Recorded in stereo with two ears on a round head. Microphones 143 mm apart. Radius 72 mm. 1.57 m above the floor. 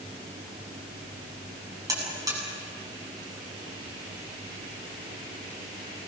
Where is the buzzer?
20° right (ahead or behind), 8.5 m.